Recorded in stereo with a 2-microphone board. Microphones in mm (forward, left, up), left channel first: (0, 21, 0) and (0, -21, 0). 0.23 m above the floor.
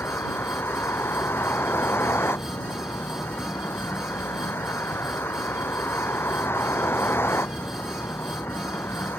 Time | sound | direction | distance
0.0 | a vehicle | 75° left (ahead or behind) | ?